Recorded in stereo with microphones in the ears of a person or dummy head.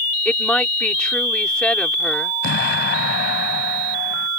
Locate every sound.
0.2 s a woman speaking: centre (ahead or behind)
2.4 s an explosion: 50° left (ahead or behind)